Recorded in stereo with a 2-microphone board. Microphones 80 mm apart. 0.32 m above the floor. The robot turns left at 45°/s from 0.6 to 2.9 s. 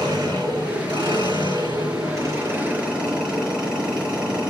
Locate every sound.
0.0 s an engine running: 65° right, 6 m; by 4.5 s 165° right, 6 m